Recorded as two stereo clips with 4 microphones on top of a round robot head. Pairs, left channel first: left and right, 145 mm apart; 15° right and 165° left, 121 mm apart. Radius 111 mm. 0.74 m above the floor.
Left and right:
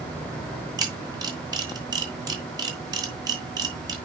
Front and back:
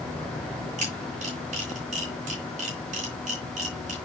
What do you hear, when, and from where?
0.8 s a camera shutter: 155° right, 4 m